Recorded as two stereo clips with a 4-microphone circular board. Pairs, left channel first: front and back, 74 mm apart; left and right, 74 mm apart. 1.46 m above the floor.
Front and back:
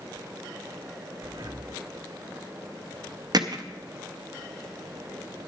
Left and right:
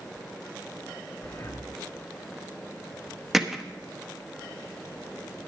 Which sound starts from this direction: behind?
Hammering, at 3.3 s.